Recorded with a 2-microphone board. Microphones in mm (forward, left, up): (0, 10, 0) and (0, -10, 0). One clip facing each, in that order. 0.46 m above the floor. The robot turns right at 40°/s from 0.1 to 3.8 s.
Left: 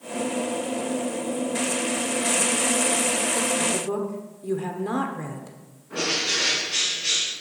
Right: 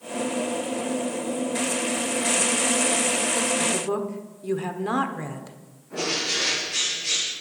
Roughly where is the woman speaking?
Right.